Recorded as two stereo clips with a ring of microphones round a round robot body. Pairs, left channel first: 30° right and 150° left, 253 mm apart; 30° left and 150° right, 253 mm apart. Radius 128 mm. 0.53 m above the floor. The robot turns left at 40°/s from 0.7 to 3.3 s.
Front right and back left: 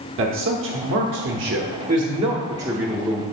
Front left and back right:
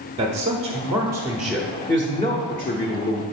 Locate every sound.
0.2 s a man speaking: 150° left, 0.9 m; by 3.2 s 50° left, 0.9 m